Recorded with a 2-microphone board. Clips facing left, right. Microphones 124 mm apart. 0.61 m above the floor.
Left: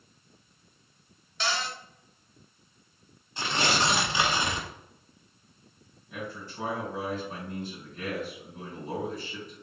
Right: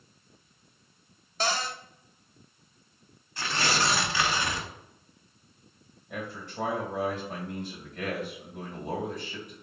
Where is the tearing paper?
20° left (ahead or behind), 0.6 m.